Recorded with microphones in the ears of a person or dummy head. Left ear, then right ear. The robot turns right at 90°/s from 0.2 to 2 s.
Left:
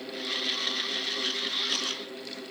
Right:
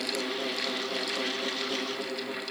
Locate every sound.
Only background noise.